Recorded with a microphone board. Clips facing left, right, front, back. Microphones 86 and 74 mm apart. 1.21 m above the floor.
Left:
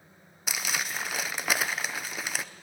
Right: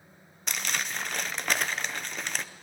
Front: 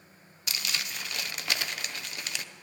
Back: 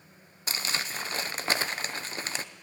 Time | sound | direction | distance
0.5 | crumpling | 170° left | 0.7 m